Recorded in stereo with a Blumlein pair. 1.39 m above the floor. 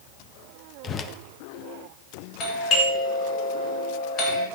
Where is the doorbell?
35° left, 3.5 m.